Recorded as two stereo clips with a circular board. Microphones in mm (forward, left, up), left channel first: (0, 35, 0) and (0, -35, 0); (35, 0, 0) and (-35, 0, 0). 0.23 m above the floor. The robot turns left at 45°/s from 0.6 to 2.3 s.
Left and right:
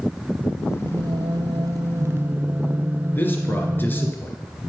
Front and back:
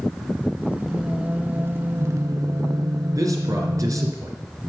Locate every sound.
0.8 s singing: 85° right, 0.6 m; by 4.1 s 150° right, 0.6 m
3.1 s a man speaking: 150° left, 2.5 m